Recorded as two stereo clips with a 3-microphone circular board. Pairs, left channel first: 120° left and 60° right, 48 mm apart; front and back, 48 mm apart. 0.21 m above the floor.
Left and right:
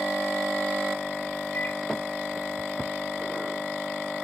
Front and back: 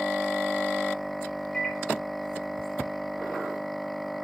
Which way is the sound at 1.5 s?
70° left.